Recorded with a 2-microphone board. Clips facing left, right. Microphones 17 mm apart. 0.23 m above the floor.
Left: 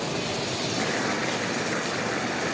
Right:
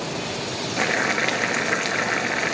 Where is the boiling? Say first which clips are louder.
Right 8 dB; 45° right (ahead or behind), 0.6 m.